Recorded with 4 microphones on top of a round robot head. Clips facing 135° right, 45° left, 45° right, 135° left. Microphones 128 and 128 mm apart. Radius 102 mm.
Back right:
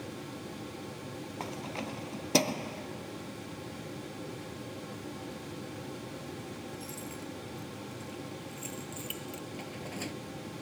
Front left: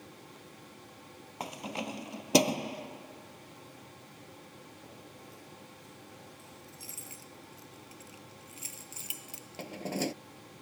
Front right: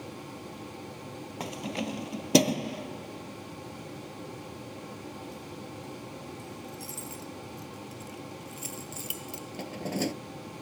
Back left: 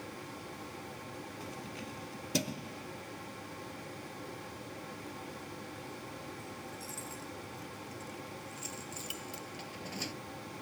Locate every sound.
1.4 s keys jangling: 30° right; by 10.2 s 5° right